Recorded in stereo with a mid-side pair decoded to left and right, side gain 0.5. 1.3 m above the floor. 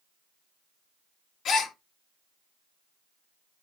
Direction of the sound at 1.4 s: 60° left.